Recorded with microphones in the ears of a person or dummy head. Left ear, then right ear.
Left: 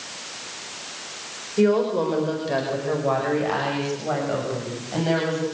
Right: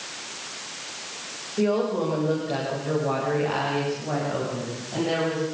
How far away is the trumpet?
No trumpet in this recording.